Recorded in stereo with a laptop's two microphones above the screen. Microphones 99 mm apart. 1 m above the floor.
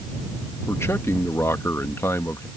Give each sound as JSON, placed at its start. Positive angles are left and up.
{"t": 0.7, "sound": "a man speaking", "side_deg": 30}